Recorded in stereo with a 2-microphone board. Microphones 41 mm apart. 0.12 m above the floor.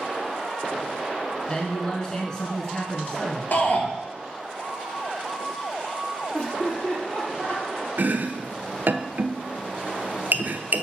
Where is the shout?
50° left (ahead or behind), 2 m.